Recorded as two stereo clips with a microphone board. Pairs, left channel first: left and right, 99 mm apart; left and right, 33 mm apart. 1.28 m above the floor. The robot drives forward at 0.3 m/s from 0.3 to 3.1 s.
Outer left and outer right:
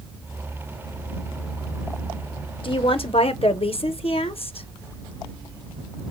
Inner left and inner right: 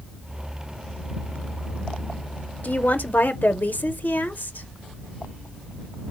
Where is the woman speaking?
60° left (ahead or behind), 0.7 m; by 4.7 s 70° left (ahead or behind), 0.6 m.